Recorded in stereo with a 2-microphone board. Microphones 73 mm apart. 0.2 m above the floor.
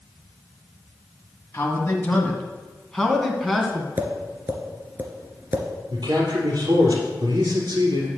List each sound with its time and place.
1.5 s a man speaking: 35° left (ahead or behind), 1.5 m; by 3.9 s 5° right (ahead or behind), 2 m
4.0 s tapping: 25° right (ahead or behind), 1.6 m
5.9 s a man speaking: 70° right (ahead or behind), 3 m